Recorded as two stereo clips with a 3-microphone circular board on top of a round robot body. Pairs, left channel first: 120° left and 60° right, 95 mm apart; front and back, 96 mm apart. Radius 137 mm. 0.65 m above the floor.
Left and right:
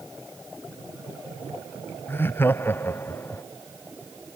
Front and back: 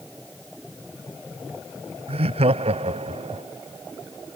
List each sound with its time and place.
2.1 s laughter: 170° right